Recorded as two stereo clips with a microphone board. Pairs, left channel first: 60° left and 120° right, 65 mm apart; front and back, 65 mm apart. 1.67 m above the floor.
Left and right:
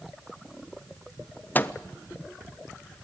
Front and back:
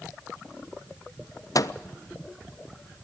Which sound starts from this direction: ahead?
A microwave, at 1.6 s.